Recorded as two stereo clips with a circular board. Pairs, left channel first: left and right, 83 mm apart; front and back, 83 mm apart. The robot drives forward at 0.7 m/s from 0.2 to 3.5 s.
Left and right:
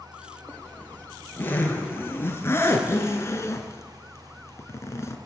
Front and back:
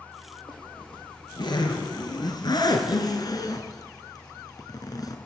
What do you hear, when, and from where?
0.5 s a zipper: 25° left, 5 m; by 5.2 s 40° left, 3.5 m